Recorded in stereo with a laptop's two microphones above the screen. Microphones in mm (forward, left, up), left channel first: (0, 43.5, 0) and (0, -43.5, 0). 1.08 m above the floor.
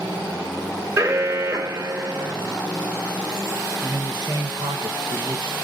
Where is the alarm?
40° right (ahead or behind), 1.8 m.